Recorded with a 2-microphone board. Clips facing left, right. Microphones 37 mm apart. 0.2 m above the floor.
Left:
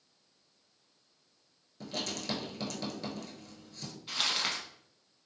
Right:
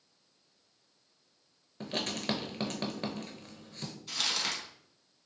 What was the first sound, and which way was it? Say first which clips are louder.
Writing: right 3 dB; 40° right (ahead or behind).